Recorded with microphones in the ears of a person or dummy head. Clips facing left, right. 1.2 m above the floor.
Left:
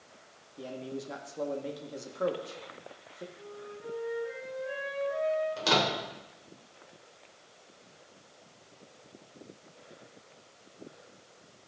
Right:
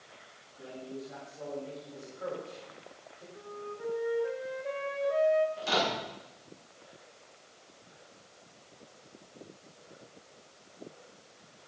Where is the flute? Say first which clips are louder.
Right 3 dB; 65° right (ahead or behind), 1.9 m.